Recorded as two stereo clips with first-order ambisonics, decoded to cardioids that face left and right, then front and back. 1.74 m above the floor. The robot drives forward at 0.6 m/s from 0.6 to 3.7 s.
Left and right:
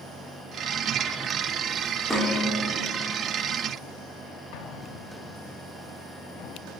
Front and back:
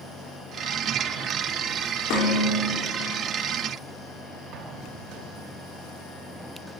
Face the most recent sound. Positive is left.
turn(degrees=125)